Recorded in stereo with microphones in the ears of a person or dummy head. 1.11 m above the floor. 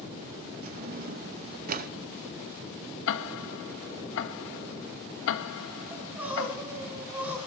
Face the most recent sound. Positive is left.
turn(degrees=-10)  # may be behind; listen again after turning